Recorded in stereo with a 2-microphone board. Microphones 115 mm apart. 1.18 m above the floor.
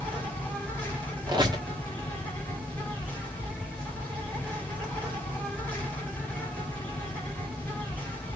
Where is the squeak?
40° right (ahead or behind), 1.2 m.